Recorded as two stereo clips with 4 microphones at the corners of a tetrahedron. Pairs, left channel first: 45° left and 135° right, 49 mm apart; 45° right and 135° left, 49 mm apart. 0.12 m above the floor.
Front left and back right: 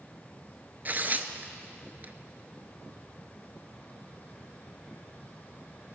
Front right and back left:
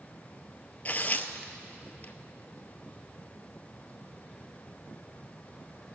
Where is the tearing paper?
95° right, 0.6 m.